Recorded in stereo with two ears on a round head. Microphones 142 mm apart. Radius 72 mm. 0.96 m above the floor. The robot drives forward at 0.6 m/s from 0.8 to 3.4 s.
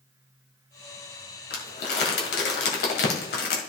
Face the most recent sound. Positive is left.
turn(degrees=75)  # may be behind; listen again after turning